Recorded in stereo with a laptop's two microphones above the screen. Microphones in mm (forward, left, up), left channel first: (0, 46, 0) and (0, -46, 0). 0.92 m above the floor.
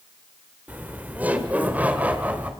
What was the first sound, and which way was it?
Laughter, 20° right (ahead or behind).